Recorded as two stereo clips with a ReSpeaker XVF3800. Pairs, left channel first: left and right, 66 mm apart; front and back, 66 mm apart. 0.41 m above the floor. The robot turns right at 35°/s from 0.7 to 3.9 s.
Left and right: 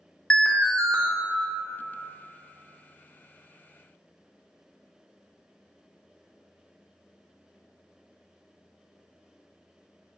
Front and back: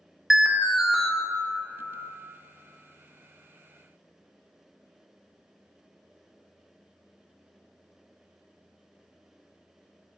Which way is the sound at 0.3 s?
110° left.